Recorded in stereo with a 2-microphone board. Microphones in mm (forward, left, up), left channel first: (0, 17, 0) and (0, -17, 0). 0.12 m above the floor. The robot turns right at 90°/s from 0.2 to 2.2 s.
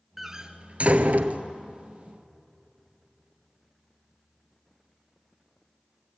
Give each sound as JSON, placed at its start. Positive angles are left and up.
{"t": 0.2, "sound": "a door slam", "side_deg": -5, "distance_m": 1.2}